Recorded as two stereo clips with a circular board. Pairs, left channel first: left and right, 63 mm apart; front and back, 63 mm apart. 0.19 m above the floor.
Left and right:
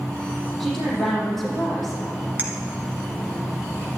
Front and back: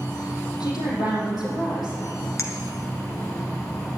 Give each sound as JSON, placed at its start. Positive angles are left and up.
{"t": 0.6, "sound": "a woman speaking", "azimuth_deg": 5, "distance_m": 5.5}
{"t": 2.4, "sound": "a clink", "azimuth_deg": -30, "distance_m": 1.6}